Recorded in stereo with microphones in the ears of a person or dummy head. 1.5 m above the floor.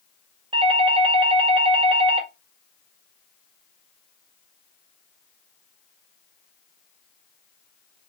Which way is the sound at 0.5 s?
25° right (ahead or behind).